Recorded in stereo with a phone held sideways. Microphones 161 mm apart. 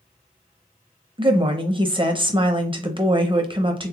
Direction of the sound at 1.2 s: 35° right (ahead or behind).